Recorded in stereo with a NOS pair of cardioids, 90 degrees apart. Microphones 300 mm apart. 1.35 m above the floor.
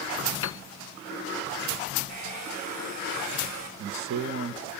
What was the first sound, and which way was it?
A piano, 45° left.